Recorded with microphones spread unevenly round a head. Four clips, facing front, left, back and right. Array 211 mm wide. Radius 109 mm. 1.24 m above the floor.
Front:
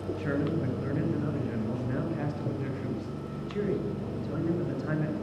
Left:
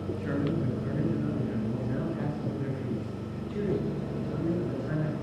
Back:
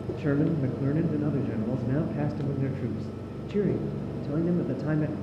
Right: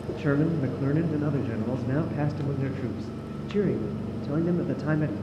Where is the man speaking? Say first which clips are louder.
Right 6 dB, back 5 dB; 125° right, 0.9 m.